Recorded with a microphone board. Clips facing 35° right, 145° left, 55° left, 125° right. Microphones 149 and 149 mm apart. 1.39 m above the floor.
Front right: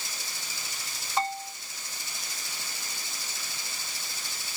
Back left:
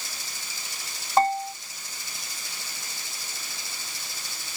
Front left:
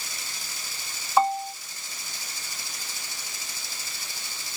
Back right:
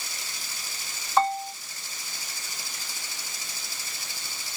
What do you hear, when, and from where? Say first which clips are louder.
1.2 s a bell: back left 9 dB, front left 1 dB; 135° left